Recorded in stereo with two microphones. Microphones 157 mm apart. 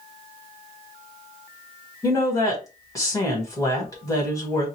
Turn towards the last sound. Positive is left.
turn(degrees=20)  # may be behind; listen again after turning